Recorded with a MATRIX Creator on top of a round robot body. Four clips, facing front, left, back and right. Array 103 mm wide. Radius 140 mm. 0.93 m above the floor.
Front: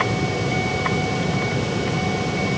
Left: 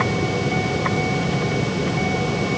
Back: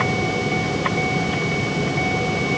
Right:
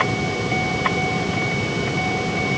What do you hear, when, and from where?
Only background noise.